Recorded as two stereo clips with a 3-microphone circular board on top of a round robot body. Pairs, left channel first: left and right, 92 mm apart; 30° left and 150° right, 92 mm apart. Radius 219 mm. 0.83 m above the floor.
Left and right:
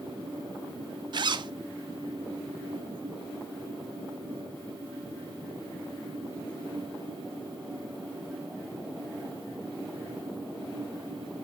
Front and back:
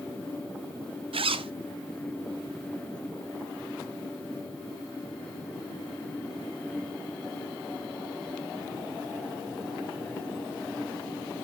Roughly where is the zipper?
Behind right.